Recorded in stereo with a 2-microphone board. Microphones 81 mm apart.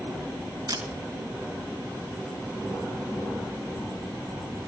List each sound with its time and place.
0.7 s a camera shutter: 60° right (ahead or behind), 5 m